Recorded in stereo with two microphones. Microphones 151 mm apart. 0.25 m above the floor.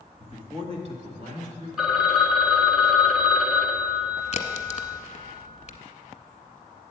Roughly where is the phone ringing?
Centre.